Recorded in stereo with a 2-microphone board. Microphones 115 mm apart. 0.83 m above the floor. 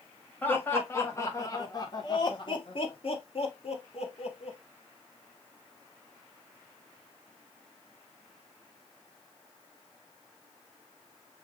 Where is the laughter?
15° left (ahead or behind), 1.8 m; by 4.6 s 60° left (ahead or behind), 1.9 m.